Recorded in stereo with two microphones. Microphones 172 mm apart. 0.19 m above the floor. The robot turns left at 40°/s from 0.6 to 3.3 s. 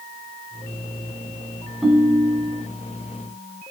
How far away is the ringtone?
About 1.1 m.